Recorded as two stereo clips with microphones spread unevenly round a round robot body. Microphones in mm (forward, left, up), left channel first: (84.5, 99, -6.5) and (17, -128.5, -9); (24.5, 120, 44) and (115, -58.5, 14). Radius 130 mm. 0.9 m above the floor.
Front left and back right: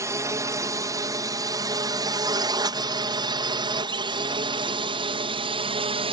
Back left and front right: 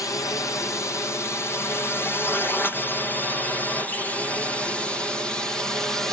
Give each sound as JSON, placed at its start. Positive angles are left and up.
{"t": 0.0, "sound": "a drone", "azimuth_deg": -170}